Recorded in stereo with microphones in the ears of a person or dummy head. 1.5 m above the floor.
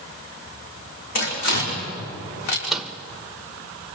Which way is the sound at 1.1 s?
65° left (ahead or behind).